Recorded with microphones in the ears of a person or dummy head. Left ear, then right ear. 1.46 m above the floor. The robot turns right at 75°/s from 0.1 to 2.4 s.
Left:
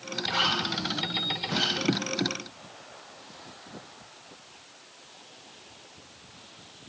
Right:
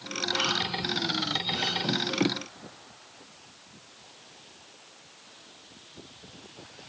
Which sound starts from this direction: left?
A zipper, at 0.2 s.